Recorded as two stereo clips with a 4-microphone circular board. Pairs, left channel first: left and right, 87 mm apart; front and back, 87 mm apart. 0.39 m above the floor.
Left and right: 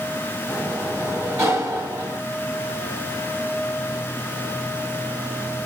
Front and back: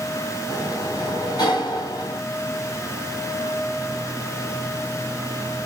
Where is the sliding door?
35° right, 1.5 m.